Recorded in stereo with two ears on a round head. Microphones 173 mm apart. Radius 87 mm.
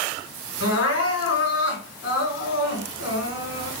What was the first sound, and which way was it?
Crying, 75° left (ahead or behind).